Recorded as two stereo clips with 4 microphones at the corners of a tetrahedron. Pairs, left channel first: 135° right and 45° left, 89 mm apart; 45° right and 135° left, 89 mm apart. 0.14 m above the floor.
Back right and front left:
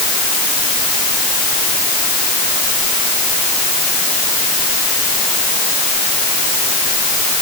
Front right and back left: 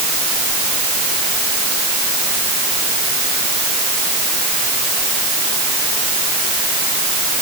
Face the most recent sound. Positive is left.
No sound to turn to.